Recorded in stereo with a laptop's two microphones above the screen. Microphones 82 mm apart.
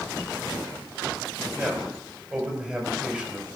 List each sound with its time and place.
1.6 s a man speaking: 15° right (ahead or behind), 4.5 m